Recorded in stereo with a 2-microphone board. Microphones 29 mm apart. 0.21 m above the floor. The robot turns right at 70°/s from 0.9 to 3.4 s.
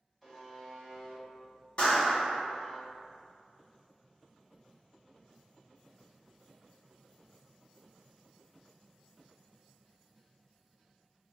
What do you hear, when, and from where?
0.2 s a buzzer: 5° left, 1.7 m; by 2.8 s 135° left, 1.7 m
1.8 s a clap: 70° left, 1.6 m; by 2.4 s 115° left, 1.6 m